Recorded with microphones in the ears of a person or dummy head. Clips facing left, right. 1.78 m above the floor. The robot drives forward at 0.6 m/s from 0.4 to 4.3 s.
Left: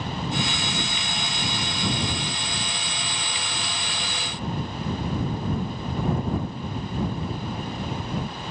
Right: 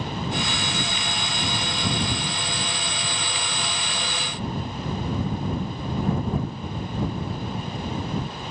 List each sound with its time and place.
Only background noise.